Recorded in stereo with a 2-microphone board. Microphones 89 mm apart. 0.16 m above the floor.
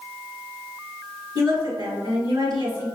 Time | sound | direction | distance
1.4 | a woman speaking | 45° right (ahead or behind) | 1.7 m